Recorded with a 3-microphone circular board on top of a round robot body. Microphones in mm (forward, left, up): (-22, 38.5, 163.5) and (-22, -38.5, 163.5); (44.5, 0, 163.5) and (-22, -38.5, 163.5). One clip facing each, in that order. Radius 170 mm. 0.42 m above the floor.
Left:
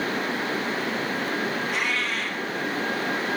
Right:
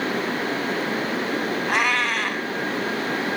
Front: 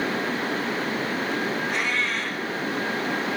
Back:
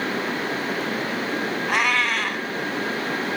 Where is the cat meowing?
125° right, 0.7 m.